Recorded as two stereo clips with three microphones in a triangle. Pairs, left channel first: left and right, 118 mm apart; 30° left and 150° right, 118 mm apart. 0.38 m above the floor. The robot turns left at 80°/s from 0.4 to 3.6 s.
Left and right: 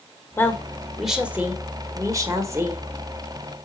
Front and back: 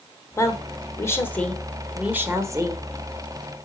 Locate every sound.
0.4 s a woman speaking: 50° left, 1.4 m; by 2.9 s 145° right, 1.4 m